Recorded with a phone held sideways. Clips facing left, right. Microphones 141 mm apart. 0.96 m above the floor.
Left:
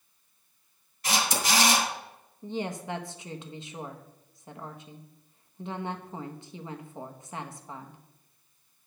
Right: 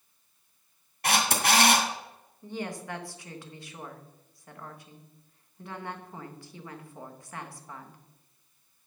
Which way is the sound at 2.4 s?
20° left (ahead or behind).